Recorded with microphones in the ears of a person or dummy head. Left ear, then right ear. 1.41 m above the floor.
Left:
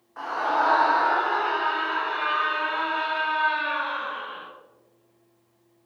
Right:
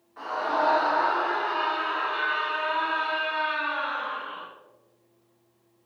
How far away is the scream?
About 3.5 m.